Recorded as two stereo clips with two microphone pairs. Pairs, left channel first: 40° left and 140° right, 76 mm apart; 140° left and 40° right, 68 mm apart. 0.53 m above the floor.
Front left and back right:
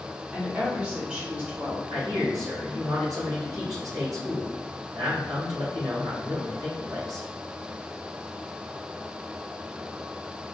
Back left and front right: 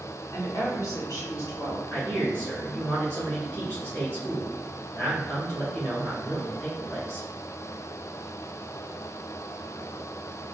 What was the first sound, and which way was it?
A woman speaking, 155° left.